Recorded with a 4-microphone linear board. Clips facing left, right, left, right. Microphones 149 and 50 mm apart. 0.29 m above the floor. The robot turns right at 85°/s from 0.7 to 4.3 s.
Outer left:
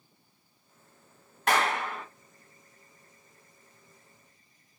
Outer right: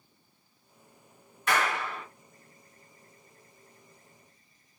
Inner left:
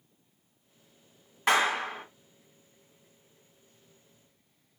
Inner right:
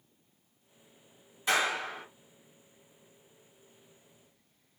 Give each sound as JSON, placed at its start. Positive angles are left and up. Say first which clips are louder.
{"t": 1.5, "sound": "a clap", "louder": "outer left 2 dB, inner left 4 dB", "azimuth_deg": 85, "distance_m": 1.7}